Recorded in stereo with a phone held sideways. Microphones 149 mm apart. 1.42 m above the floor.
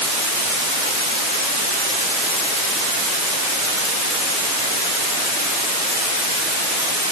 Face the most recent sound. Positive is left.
No sound to turn to.